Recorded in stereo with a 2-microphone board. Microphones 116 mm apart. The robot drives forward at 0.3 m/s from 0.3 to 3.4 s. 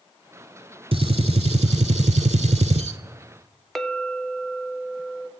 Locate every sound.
0.9 s a gunshot: 55° right (ahead or behind), 0.7 m; by 3.0 s 65° right (ahead or behind), 0.6 m
3.8 s a clink: centre (ahead or behind), 0.6 m